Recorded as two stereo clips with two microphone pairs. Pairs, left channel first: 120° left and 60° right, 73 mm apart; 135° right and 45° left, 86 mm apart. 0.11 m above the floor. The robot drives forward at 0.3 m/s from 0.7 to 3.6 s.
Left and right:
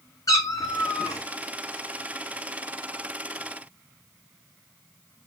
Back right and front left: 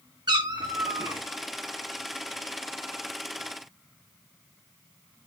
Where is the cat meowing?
80° left, 0.8 m; by 1.2 s 90° left, 0.8 m.